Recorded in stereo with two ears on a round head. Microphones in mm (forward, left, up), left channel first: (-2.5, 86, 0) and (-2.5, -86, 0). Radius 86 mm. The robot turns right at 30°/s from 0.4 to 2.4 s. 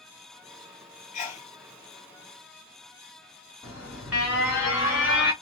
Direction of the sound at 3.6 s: 5° right (ahead or behind).